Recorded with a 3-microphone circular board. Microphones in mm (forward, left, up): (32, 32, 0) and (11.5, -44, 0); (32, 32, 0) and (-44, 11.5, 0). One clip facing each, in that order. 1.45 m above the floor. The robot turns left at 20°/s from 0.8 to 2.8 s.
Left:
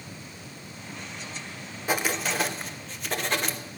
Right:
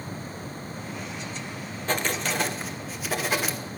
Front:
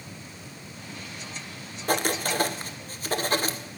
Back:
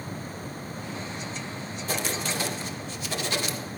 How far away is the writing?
About 1.2 m.